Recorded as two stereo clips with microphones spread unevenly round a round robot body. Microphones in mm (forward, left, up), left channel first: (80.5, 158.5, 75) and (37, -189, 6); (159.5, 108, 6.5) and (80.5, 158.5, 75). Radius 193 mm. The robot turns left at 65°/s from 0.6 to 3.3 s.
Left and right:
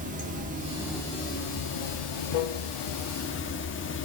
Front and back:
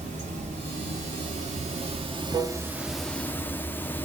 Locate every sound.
0.0 s running water: 160° right, 1.2 m; by 4.1 s 20° left, 1.2 m